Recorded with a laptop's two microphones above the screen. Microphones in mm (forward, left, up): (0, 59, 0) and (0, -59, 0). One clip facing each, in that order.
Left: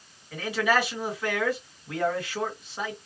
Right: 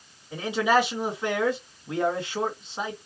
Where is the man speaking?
20° right (ahead or behind), 1.9 m.